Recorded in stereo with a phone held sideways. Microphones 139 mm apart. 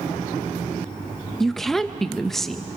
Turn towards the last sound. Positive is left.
turn(degrees=0)  # may be behind; listen again after turning